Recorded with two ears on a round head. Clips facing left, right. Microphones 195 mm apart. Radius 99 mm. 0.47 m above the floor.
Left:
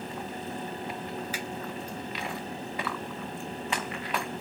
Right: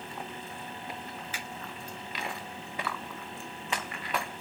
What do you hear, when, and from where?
1.3 s a finger snap: 70° left (ahead or behind), 2.5 m